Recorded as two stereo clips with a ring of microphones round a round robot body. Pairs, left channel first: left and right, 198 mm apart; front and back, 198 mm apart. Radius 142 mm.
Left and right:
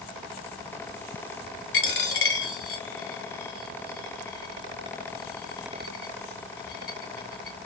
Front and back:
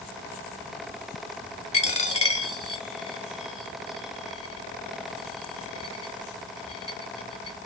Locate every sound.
1.7 s a dropped coin: 60° left, 1.1 m